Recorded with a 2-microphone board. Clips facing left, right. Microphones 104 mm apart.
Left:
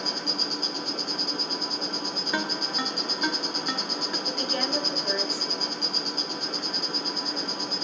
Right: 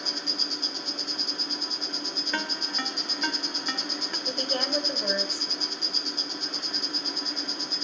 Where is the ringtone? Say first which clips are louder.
Left 3 dB; 10° left (ahead or behind), 1.3 m.